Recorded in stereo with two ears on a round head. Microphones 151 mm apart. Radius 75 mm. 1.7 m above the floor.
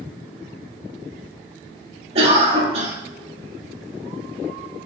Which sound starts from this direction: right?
A cough, at 2.1 s.